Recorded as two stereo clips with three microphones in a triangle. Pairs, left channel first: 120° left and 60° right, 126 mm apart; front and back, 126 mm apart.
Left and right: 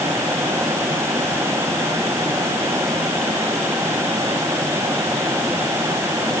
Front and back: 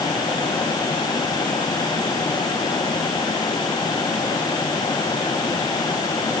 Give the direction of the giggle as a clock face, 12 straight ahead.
No giggle in this recording.